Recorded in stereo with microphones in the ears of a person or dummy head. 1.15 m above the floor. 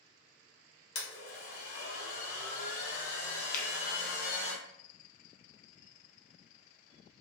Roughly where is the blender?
Left.